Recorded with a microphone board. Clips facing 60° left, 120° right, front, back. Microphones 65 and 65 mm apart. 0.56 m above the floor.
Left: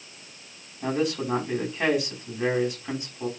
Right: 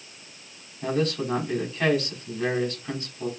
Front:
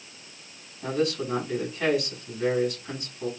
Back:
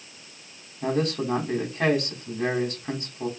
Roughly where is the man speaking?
Behind left.